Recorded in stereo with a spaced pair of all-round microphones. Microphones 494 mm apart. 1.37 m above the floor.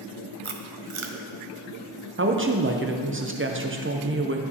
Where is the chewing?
75° right (ahead or behind), 0.6 m.